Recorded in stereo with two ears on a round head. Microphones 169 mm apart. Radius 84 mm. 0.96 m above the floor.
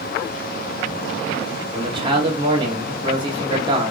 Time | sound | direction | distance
1.7 | a man speaking | 25° right (ahead or behind) | 1.2 m